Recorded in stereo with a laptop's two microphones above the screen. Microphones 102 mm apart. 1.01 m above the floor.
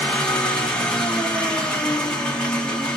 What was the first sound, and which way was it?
An engine running, 10° left (ahead or behind).